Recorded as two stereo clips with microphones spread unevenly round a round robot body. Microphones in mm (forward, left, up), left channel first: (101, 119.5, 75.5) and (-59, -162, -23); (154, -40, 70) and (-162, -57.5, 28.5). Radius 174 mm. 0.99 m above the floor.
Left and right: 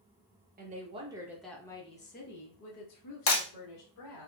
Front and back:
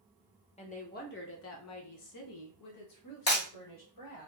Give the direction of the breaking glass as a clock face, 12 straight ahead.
10 o'clock.